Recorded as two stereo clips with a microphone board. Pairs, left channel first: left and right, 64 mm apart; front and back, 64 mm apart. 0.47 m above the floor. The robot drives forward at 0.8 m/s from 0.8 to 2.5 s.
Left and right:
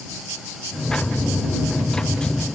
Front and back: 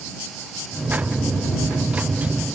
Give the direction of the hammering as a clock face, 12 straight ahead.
I don't hear hammering.